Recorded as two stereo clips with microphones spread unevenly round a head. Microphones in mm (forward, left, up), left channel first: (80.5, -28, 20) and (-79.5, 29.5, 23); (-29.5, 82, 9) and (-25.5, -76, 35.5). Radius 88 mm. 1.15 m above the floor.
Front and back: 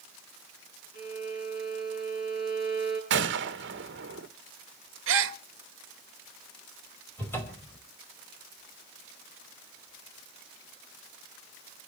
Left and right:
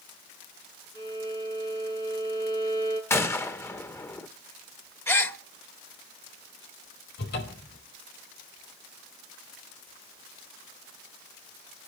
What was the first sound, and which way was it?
A violin, 20° left.